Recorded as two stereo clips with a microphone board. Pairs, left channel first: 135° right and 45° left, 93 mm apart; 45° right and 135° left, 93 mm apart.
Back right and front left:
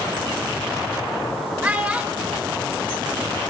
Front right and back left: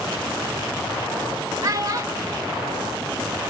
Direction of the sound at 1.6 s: 115° left.